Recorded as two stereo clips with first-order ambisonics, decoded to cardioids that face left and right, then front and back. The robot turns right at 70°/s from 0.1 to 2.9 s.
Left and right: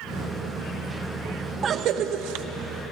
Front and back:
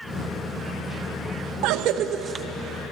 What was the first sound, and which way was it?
A cough, 155° right.